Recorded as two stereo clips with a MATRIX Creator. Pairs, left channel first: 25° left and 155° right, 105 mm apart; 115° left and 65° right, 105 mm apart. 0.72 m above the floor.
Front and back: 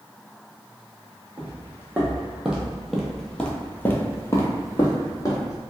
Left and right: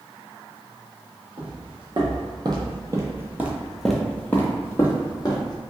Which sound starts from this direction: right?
Footsteps, at 1.4 s.